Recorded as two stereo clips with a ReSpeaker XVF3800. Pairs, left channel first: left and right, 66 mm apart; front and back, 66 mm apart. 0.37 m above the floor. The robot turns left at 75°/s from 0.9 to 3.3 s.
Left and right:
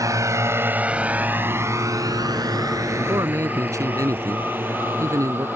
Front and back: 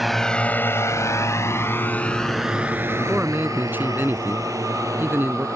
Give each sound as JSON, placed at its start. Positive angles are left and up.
{"t": 0.0, "sound": "a drone", "azimuth_deg": -95}
{"t": 3.0, "sound": "a man speaking", "azimuth_deg": -100}